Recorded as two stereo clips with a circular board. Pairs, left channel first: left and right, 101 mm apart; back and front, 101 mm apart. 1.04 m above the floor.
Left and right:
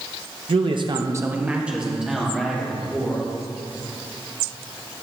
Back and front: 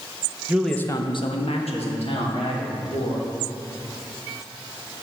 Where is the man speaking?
70° right, 0.7 m; by 3.2 s straight behind, 3.5 m.